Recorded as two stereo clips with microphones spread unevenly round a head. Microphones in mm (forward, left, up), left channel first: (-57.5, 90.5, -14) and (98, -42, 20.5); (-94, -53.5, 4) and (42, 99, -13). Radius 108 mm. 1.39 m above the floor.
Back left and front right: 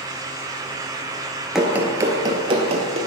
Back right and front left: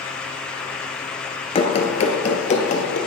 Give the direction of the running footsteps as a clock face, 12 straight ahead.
4 o'clock.